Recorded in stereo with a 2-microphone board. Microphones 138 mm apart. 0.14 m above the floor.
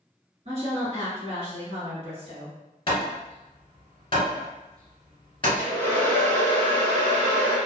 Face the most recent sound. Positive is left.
turn(degrees=10)  # may be behind; listen again after turning